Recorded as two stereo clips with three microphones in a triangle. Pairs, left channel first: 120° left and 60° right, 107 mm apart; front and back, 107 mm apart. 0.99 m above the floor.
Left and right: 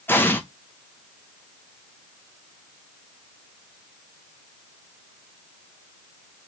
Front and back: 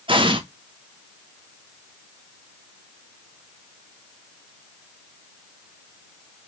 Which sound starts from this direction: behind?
An explosion, at 0.1 s.